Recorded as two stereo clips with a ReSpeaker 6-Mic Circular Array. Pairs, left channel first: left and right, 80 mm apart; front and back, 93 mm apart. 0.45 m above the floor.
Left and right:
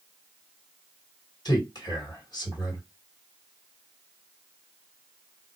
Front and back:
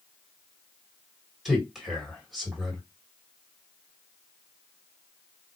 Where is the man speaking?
95° left, 2.5 m.